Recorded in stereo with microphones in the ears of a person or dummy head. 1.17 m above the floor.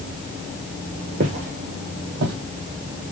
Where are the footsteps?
25° right (ahead or behind), 1.3 m; by 2.4 s 55° right (ahead or behind), 2 m.